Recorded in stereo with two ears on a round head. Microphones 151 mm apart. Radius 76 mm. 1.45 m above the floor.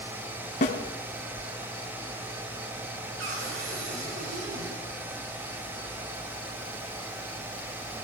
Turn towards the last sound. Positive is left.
turn(degrees=-80)